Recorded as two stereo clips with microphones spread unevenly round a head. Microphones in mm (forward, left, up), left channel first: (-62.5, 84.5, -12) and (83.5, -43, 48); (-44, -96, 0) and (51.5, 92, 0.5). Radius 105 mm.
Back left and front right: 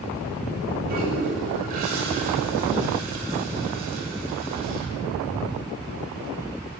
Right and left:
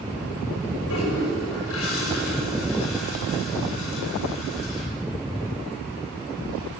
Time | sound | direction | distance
0.9 | a toilet flushing | 90° right | 6.5 m